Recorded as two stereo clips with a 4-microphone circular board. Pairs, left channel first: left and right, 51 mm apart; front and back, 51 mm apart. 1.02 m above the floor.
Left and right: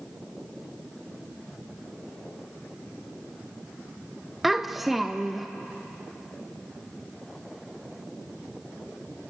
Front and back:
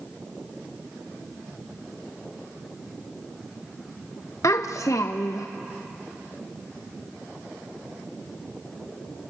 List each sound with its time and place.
4.4 s a child speaking: straight ahead, 0.6 m